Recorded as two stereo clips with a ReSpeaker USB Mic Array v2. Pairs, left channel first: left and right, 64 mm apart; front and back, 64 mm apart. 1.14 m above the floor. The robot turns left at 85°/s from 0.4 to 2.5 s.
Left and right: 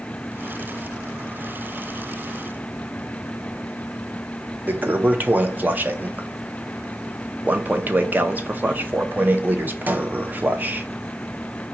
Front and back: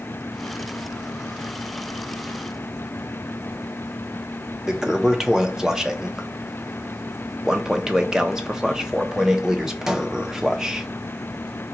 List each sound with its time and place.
4.7 s a toilet flushing: 105° right, 0.5 m